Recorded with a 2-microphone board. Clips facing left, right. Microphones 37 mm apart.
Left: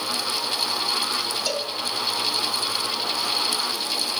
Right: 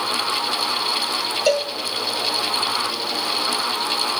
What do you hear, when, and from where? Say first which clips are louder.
1.5 s a cowbell: right 8 dB; 45° right (ahead or behind), 1.9 m